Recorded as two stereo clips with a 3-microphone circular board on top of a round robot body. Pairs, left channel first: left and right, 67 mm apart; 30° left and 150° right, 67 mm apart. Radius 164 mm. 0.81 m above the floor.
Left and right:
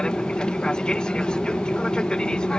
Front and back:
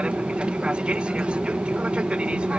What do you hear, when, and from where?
0.0 s an aircraft: 150° left